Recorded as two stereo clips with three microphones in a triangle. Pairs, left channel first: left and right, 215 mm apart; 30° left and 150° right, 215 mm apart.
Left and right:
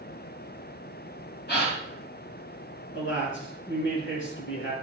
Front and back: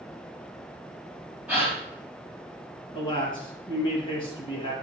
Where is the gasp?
125° left, 3.5 m.